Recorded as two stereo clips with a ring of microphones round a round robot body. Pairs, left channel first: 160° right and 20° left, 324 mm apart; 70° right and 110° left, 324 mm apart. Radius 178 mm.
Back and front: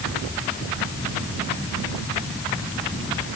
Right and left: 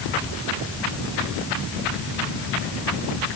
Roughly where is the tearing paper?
I don't hear tearing paper.